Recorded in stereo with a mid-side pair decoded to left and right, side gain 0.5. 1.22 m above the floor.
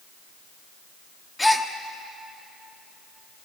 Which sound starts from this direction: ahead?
A gasp, at 1.4 s.